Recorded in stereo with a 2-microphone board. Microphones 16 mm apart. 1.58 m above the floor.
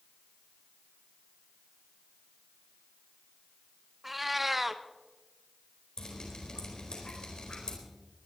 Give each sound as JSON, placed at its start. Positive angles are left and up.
{"t": 4.0, "sound": "a cat meowing", "side_deg": -10, "distance_m": 0.7}
{"t": 6.0, "sound": "dripping", "side_deg": 70, "distance_m": 4.0}